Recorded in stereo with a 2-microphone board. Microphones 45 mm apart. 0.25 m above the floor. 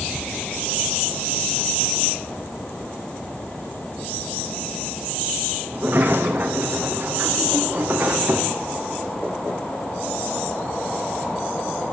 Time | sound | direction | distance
5.7 | a sliding door | 45° right (ahead or behind) | 3.5 m